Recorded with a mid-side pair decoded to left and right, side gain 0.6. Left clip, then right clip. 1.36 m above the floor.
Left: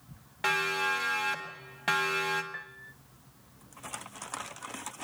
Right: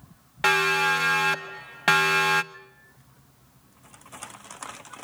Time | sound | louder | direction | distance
0.4 | a siren | right 7 dB | 40° right | 2 m
2.5 | a piano | left 6 dB | 55° left | 0.7 m